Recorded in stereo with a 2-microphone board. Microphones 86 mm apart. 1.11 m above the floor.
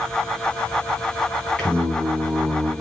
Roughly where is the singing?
Centre.